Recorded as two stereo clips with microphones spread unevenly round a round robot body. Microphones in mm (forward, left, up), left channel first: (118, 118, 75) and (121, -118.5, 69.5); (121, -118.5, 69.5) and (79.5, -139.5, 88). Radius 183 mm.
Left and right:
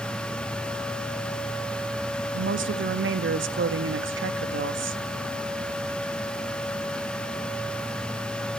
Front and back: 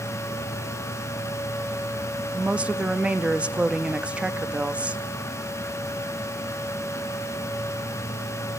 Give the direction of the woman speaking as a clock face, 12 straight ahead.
2 o'clock.